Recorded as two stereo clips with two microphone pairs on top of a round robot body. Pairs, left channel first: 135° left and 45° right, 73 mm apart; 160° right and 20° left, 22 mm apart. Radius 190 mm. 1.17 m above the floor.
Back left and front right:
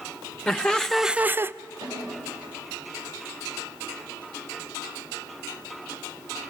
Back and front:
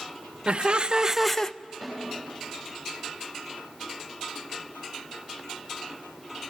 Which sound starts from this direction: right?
A snare drum, at 1.8 s.